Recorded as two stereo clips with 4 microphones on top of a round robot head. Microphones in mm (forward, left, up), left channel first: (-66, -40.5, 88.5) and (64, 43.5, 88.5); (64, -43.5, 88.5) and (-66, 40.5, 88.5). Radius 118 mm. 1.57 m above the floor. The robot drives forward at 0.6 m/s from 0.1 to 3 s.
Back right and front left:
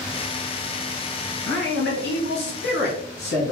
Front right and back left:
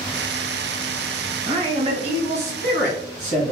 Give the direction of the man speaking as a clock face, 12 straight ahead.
5 o'clock.